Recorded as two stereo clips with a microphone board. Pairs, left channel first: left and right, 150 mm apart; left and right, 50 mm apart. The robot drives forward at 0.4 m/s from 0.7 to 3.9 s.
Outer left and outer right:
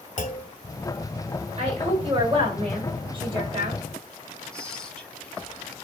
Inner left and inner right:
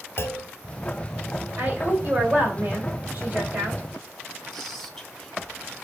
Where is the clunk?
55° left (ahead or behind), 0.8 m.